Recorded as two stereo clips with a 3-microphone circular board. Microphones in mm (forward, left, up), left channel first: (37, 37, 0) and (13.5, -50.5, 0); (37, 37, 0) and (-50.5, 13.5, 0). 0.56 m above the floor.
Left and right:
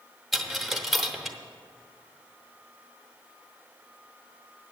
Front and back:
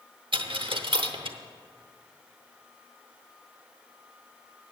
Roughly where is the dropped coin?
Behind.